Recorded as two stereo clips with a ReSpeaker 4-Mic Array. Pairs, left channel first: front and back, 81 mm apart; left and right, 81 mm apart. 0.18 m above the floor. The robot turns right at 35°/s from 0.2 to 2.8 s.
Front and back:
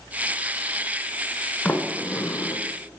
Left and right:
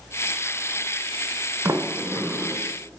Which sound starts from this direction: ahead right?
A sliding door, at 1.6 s.